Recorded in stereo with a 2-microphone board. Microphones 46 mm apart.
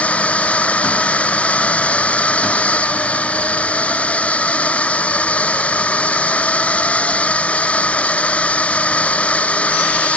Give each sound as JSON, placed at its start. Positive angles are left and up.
{"t": 0.0, "sound": "a drone", "side_deg": 25}